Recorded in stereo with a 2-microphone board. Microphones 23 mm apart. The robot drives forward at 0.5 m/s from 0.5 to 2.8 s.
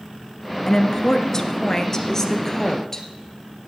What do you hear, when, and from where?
0.7 s a woman speaking: 25° left (ahead or behind), 1.2 m; by 3.1 s 20° left (ahead or behind), 1.6 m